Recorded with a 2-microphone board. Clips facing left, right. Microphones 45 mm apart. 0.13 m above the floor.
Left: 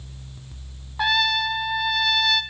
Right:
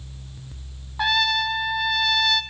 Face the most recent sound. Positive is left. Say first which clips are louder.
# even
turn(degrees=0)  # may be behind; listen again after turning